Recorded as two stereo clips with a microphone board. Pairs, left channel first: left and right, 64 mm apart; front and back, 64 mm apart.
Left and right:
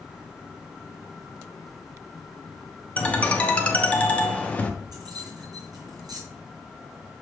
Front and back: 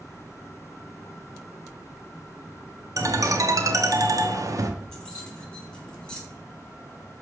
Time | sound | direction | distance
3.0 | a ringtone | 160° left | 0.9 m
4.9 | keys jangling | 75° right | 3.5 m